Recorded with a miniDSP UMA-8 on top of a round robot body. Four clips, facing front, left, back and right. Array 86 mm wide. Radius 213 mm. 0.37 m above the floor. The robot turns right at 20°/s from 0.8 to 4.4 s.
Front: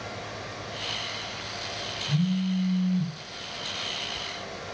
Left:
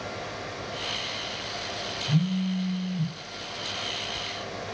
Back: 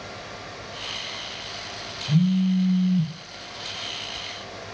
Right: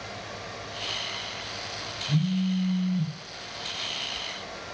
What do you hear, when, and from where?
2.1 s a phone buzzing: 135° left, 0.6 m; by 3.1 s 155° left, 0.6 m